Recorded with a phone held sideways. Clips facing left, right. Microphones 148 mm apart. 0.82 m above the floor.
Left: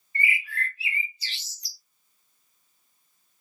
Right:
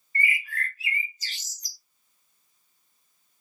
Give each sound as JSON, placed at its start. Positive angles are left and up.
{"t": 0.1, "sound": "a bird", "side_deg": -45, "distance_m": 0.6}